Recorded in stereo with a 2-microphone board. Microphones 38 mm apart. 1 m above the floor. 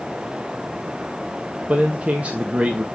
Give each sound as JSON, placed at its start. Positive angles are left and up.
{"t": 1.7, "sound": "a man speaking", "side_deg": -35, "distance_m": 1.3}